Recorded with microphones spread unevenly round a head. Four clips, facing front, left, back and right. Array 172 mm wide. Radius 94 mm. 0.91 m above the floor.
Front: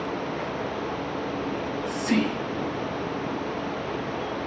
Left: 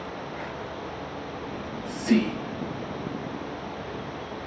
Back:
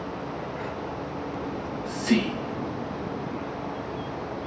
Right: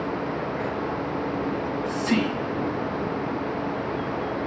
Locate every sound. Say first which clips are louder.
1.5 s whispering: right 7 dB, front 3 dB; 135° left, 4.5 m